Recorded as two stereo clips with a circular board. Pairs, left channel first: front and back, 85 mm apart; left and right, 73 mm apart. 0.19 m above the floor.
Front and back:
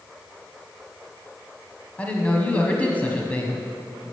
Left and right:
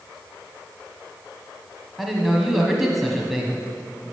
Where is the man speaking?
5° right, 1.2 m.